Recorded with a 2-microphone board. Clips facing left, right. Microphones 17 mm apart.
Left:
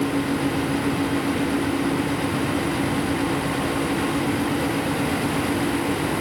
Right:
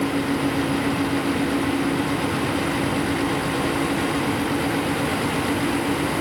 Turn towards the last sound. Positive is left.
No sound to turn to.